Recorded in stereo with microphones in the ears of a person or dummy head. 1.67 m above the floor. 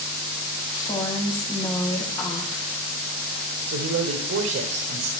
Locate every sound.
0.7 s a woman speaking: 20° left (ahead or behind), 1.3 m
3.7 s a man speaking: 65° right (ahead or behind), 1.0 m